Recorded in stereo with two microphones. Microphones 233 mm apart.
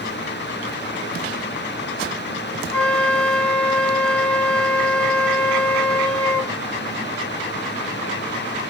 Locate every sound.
2.7 s a flute: 5° left (ahead or behind), 3 m